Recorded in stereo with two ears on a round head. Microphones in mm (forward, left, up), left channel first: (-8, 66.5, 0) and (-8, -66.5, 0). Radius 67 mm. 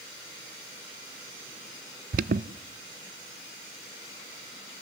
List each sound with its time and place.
2.1 s an alarm: 60° right (ahead or behind), 0.5 m